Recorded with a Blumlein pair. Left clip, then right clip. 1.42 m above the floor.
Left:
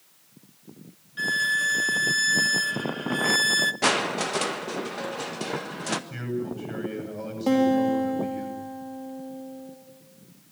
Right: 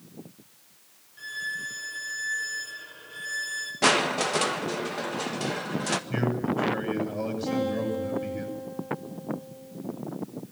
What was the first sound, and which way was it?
A violin, 35° left.